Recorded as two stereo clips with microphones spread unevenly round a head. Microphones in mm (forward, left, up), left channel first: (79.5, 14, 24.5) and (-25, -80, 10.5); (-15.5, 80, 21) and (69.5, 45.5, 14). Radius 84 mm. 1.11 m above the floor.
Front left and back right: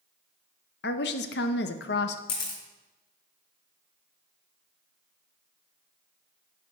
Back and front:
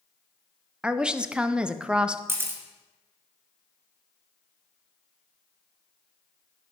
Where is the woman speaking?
60° left, 0.7 m.